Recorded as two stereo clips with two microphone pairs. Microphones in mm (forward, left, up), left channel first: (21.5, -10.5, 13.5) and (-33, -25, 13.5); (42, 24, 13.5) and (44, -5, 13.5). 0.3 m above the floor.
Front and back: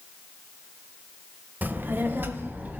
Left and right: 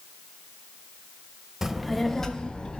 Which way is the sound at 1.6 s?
145° right.